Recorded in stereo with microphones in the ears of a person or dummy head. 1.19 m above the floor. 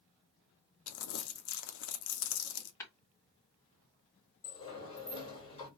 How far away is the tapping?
About 2 m.